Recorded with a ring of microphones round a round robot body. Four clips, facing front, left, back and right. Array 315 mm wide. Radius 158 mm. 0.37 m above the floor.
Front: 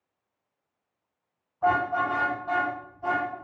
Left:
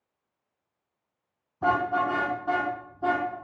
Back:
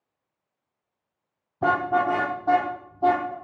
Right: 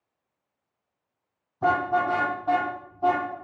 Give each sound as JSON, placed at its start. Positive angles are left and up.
{"t": 1.6, "sound": "a car horn", "azimuth_deg": 175, "distance_m": 7.0}